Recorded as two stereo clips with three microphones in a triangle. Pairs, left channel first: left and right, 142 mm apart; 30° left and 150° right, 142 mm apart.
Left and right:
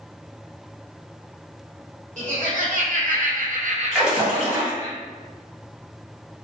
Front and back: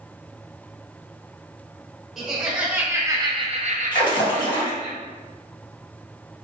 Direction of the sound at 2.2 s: 60° right.